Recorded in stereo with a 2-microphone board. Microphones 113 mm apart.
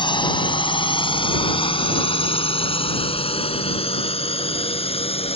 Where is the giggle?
I don't hear a giggle.